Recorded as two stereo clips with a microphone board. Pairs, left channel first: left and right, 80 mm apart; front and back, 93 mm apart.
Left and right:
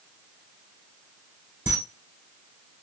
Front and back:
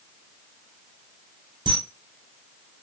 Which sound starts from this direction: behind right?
A camera shutter, at 1.7 s.